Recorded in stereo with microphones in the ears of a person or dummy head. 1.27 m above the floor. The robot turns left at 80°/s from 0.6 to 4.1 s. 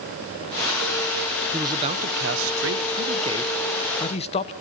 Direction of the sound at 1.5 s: 10° right.